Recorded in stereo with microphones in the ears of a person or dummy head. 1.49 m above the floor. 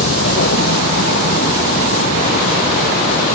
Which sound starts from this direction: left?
A vehicle, at 0.0 s.